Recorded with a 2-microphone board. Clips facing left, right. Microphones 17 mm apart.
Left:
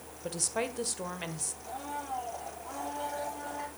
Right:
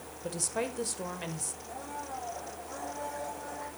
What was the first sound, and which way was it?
A woman speaking, 10° left (ahead or behind).